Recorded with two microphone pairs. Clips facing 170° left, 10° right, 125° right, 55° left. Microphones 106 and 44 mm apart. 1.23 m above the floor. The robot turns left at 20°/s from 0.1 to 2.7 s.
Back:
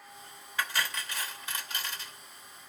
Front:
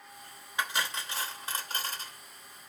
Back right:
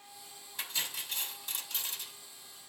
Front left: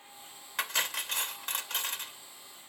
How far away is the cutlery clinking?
About 0.9 m.